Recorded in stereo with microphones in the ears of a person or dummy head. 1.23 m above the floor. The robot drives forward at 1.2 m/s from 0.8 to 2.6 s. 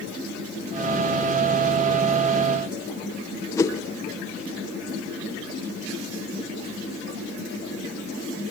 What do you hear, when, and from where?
3.5 s a whoosh: 20° left (ahead or behind), 1.0 m